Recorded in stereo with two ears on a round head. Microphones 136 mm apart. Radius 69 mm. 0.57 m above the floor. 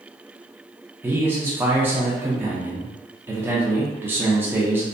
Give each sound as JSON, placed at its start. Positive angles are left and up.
{"t": 1.0, "sound": "a man speaking", "side_deg": -15, "distance_m": 0.6}